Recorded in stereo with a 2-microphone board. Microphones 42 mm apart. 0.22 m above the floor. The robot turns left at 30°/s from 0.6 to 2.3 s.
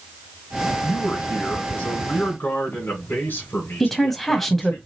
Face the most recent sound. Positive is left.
turn(degrees=5)  # may be behind; listen again after turning